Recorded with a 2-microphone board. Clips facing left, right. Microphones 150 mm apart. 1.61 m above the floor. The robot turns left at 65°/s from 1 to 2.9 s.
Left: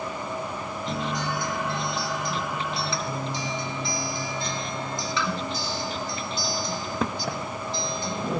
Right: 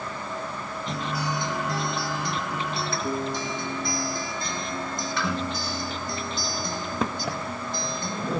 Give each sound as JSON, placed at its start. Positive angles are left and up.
{"t": 0.9, "sound": "a guitar", "azimuth_deg": 0, "distance_m": 4.0}